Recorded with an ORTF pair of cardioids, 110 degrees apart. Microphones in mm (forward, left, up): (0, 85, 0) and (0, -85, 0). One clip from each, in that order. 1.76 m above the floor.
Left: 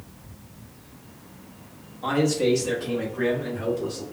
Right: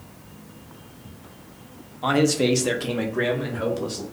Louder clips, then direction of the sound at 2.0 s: Right 2 dB; 25° right.